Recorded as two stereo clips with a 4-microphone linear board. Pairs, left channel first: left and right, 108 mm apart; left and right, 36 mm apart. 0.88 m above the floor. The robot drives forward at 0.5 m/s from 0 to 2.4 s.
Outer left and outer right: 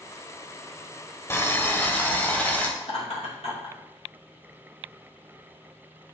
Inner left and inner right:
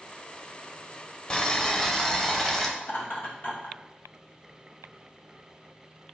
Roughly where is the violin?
No violin in this recording.